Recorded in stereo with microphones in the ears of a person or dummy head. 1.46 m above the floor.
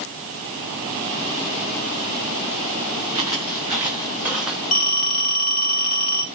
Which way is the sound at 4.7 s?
40° left (ahead or behind).